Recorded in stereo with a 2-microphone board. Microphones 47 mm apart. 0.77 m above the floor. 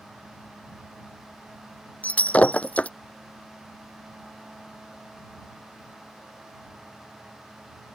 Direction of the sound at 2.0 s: 35° left (ahead or behind).